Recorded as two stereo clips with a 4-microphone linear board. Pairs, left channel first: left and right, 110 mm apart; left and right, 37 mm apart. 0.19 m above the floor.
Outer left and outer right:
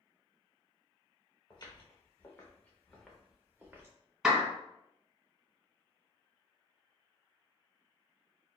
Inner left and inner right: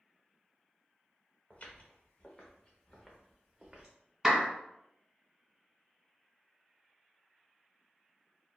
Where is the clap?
5° right (ahead or behind), 1.6 m.